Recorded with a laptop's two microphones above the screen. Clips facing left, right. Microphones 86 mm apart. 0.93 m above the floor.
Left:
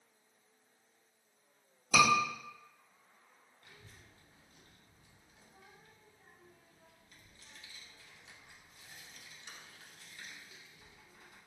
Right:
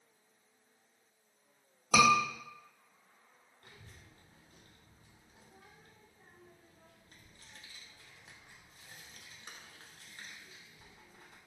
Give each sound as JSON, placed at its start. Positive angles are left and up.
{"t": 1.9, "sound": "a scream", "side_deg": -65, "distance_m": 1.4}
{"t": 3.6, "sound": "a child speaking", "side_deg": -45, "distance_m": 0.8}